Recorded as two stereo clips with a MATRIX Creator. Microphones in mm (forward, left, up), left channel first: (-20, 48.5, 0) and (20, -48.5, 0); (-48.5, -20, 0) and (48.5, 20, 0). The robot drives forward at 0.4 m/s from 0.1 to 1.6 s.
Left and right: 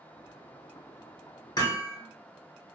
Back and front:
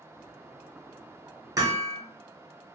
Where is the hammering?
70° left, 0.6 m.